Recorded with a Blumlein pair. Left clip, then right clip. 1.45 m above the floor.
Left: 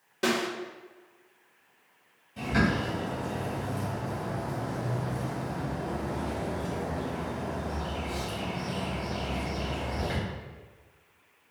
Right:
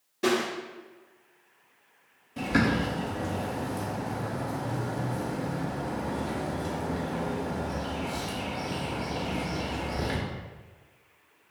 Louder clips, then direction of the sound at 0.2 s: Right 1 dB; 60° left.